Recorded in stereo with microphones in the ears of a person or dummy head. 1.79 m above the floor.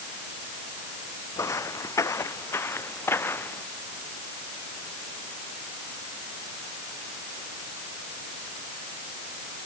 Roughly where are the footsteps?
Centre.